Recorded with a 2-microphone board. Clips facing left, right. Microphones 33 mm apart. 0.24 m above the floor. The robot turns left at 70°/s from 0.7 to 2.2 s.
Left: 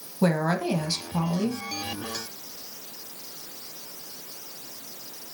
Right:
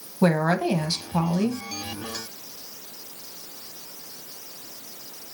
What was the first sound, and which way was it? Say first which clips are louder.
A woman speaking: right 3 dB; 30° right.